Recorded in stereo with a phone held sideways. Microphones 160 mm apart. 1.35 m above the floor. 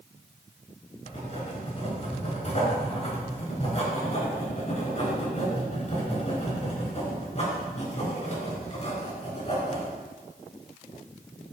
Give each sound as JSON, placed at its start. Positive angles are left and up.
{"t": 1.1, "sound": "writing", "side_deg": 40, "distance_m": 4.0}